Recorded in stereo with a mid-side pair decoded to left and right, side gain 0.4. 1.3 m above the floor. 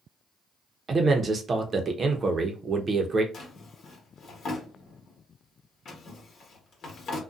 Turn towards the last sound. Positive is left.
turn(degrees=60)